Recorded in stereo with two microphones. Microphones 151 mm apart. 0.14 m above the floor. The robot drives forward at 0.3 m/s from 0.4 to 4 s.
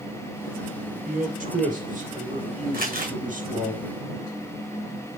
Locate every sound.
0.9 s a man speaking: 65° right (ahead or behind), 3.5 m; by 3.7 s 60° right (ahead or behind), 3.5 m
2.7 s crumpling: 75° right (ahead or behind), 3 m